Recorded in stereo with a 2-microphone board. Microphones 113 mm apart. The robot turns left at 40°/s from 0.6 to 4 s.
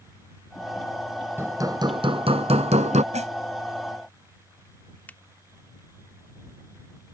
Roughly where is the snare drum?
Right.